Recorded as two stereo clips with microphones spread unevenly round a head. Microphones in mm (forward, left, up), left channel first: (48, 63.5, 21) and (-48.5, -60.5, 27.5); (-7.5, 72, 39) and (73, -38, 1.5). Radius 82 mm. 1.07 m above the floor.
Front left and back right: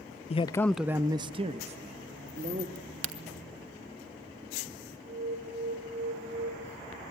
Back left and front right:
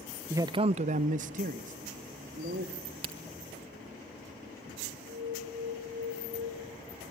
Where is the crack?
120° right, 1.5 m.